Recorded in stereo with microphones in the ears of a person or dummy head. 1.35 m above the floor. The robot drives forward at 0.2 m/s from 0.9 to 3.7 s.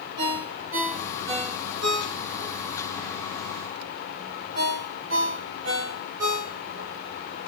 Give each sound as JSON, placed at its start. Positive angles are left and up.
{"t": 0.2, "sound": "a ringtone", "side_deg": -60, "distance_m": 1.7}